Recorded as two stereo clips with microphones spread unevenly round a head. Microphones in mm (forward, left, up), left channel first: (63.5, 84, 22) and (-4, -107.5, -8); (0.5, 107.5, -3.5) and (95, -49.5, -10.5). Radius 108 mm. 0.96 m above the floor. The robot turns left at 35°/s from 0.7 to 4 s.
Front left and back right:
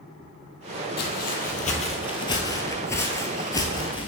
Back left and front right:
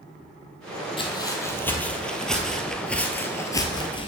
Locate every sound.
1.0 s footsteps: 65° left, 1.6 m; by 4.1 s 90° left, 1.1 m